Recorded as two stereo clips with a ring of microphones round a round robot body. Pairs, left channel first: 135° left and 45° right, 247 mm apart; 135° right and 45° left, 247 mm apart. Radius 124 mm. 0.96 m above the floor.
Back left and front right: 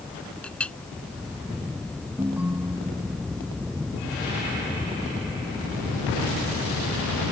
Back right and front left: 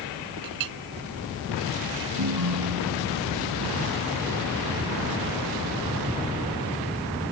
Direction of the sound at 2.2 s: 40° left.